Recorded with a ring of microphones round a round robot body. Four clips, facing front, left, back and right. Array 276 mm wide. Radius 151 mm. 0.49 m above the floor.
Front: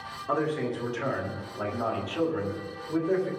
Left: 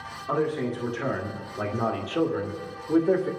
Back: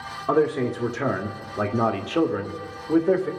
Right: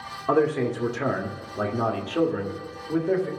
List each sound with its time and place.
0.3 s a man speaking: 135° right, 1.5 m; by 3.3 s 155° left, 1.7 m